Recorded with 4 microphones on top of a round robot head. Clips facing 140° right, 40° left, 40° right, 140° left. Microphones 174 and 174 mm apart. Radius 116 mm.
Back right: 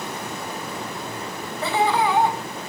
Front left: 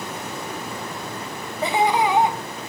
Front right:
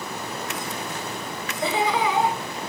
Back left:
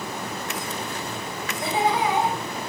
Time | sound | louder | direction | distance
1.6 | laughter | front left 1 dB, even | 35° right | 3 m